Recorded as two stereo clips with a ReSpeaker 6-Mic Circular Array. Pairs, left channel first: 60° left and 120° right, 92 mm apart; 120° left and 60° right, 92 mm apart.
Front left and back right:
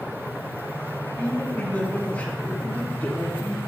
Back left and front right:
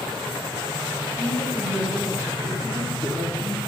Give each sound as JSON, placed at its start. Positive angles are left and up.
{"t": 1.2, "sound": "a man speaking", "azimuth_deg": -5, "distance_m": 2.0}